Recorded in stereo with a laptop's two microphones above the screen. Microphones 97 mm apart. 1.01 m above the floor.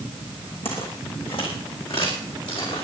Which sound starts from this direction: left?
Footsteps, at 0.7 s.